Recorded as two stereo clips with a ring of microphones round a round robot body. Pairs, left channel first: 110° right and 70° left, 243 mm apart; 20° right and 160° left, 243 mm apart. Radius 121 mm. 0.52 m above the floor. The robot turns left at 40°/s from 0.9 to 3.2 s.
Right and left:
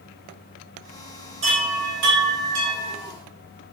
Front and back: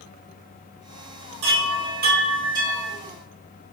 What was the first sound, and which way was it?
A chime, 130° left.